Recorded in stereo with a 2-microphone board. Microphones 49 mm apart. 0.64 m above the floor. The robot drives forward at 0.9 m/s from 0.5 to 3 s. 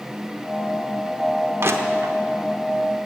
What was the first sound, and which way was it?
Crushing, 50° right (ahead or behind).